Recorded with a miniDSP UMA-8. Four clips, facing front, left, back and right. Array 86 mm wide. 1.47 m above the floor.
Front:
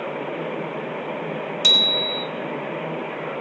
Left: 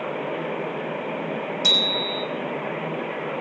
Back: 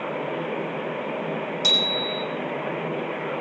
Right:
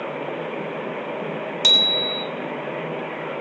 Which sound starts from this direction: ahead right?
A bicycle bell, at 1.6 s.